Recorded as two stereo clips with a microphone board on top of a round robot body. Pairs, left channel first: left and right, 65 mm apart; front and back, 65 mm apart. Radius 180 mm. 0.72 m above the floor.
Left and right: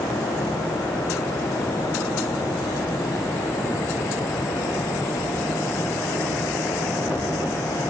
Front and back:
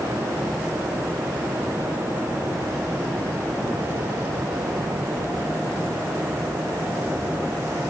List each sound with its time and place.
Only background noise.